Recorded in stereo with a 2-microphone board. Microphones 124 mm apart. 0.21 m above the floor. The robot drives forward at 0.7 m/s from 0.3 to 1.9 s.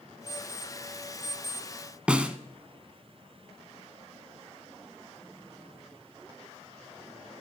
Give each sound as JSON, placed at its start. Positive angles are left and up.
{"t": 0.3, "sound": "an alarm clock", "side_deg": -65, "distance_m": 4.0}
{"t": 2.1, "sound": "a snare drum", "side_deg": -10, "distance_m": 1.1}